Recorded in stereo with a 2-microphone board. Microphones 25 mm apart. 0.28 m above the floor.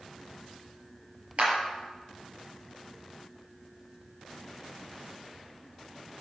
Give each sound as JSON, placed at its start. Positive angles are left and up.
{"t": 1.4, "sound": "a clap", "side_deg": -50, "distance_m": 6.0}